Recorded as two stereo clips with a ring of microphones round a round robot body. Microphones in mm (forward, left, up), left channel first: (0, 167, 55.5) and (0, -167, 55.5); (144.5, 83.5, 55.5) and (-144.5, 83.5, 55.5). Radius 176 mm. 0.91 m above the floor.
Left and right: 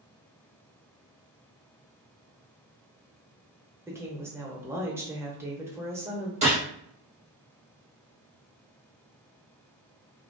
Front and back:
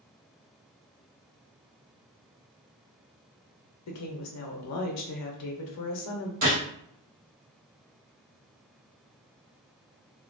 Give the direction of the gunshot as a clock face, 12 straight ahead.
5 o'clock.